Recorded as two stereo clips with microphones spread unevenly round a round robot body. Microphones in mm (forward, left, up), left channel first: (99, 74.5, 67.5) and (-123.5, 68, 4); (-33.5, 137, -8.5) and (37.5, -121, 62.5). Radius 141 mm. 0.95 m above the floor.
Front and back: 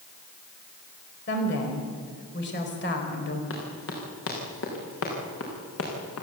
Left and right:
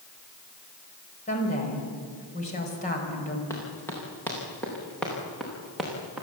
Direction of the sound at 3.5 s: 25° left.